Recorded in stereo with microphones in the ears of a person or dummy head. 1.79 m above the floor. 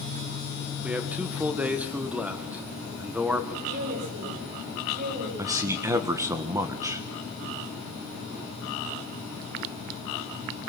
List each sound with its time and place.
0.8 s a man speaking: 5° right (ahead or behind), 1.9 m
3.7 s a woman speaking: 55° right (ahead or behind), 9.5 m
5.4 s a man speaking: 15° right (ahead or behind), 1.7 m